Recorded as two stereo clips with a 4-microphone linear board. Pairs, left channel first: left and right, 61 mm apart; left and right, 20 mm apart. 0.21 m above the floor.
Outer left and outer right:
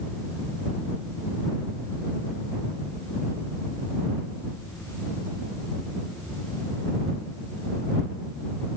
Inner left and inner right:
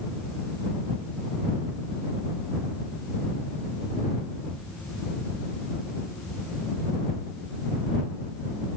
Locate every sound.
Only background noise.